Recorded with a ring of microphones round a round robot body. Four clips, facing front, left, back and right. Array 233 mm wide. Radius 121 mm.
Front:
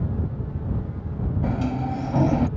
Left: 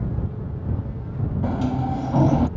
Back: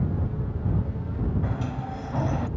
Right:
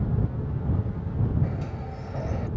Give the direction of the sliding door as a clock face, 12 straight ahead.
10 o'clock.